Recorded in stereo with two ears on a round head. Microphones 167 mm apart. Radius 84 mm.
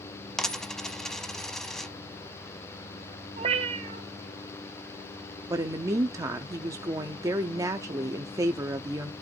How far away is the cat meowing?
About 1.1 m.